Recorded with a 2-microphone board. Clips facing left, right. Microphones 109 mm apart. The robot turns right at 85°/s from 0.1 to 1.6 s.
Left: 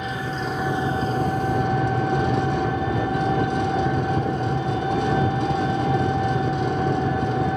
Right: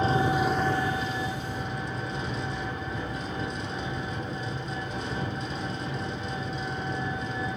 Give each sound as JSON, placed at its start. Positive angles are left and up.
{"t": 0.0, "sound": "an engine running", "azimuth_deg": -35, "distance_m": 0.8}